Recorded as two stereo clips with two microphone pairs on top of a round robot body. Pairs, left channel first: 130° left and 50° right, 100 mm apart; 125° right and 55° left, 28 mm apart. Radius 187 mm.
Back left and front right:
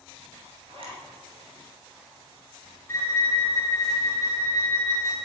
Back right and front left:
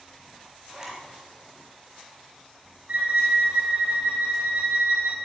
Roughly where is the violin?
Left.